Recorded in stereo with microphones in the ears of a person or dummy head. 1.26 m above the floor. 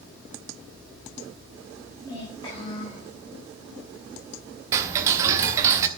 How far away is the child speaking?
About 4 m.